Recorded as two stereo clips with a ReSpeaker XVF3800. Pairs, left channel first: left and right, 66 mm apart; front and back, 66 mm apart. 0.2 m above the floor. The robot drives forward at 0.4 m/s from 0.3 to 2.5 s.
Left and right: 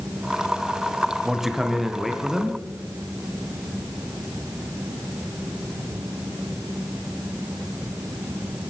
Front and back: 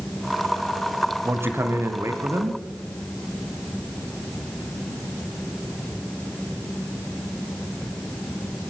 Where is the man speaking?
170° right, 1.1 m; by 2.6 s 175° right, 1.5 m.